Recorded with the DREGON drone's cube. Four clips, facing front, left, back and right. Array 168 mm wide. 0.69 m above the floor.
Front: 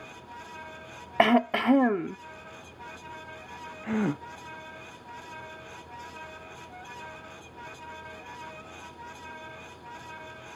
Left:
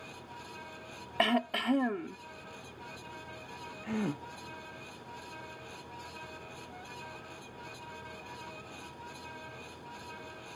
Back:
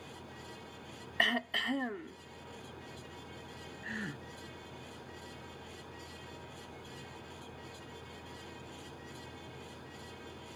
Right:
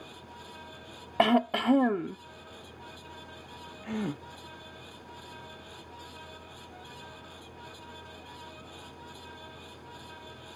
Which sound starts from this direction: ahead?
A gasp, at 3.8 s.